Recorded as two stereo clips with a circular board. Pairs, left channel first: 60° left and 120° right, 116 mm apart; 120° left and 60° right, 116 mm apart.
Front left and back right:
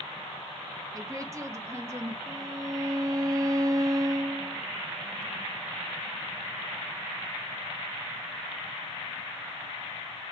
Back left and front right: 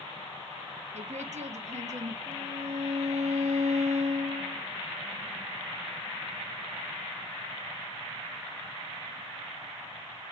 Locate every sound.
0.9 s a woman speaking: 60° right, 1.6 m; by 2.2 s 55° right, 2.5 m
2.3 s a violin: 60° right, 1.2 m